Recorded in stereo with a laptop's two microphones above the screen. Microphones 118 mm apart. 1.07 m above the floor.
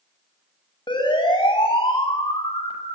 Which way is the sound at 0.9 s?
40° left (ahead or behind).